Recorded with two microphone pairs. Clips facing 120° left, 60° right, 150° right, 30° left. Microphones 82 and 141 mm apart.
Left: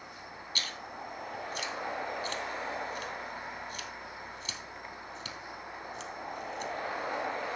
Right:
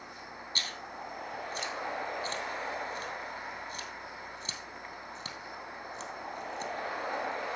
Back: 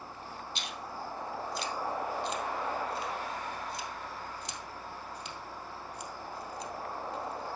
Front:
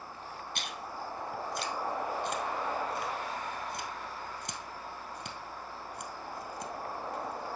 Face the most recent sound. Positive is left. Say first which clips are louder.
# even, even
turn(degrees=-5)